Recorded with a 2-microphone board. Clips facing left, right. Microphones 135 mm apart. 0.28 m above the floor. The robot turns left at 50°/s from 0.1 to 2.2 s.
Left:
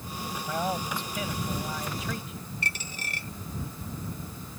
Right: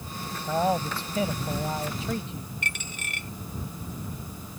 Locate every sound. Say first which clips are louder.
0.5 s a man speaking: right 6 dB; 40° right; by 2.5 s 130° right
2.6 s a dropped coin: even; 35° left (ahead or behind)